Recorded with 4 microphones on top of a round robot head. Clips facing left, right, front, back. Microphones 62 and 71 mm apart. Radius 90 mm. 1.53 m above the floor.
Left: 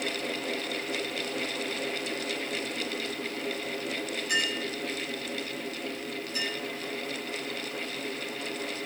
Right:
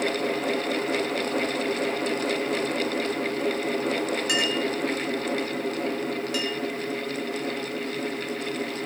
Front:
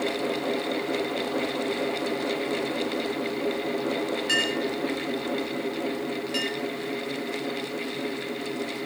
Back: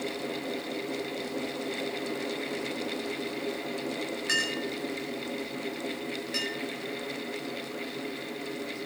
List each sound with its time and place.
4.3 s a clink: 105° right, 4 m